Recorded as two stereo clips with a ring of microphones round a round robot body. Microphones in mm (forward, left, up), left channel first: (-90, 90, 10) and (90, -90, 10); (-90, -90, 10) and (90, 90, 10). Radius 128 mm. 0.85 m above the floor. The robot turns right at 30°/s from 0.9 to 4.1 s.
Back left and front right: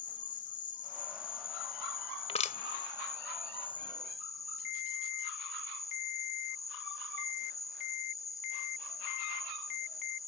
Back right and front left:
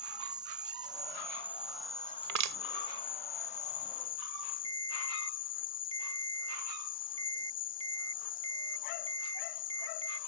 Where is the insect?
105° left; by 10.3 s 155° right.